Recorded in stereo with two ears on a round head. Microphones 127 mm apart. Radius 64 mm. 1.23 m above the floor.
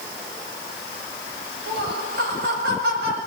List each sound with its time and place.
1.7 s laughter: 80° right, 7.5 m